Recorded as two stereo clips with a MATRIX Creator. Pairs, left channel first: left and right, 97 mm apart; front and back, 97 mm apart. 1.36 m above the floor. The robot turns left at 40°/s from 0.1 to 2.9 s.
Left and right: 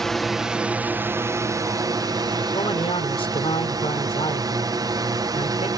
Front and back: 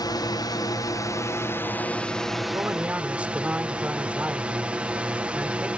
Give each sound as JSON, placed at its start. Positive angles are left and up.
{"t": 0.0, "sound": "a drone", "azimuth_deg": 5}
{"t": 2.5, "sound": "a man speaking", "azimuth_deg": 120}